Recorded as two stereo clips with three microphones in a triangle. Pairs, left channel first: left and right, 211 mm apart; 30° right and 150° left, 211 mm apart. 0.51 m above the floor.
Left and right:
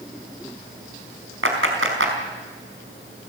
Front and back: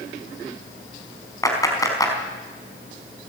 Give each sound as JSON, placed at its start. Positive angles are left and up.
{"t": 1.4, "sound": "a clap", "azimuth_deg": -105, "distance_m": 4.5}